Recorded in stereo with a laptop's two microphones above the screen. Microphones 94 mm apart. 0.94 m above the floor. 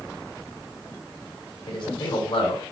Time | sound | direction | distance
1.7 | a man speaking | 50° left (ahead or behind) | 4 m